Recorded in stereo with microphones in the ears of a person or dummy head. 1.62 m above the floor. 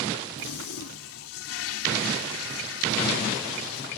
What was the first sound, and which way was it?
A toilet flushing, 90° left.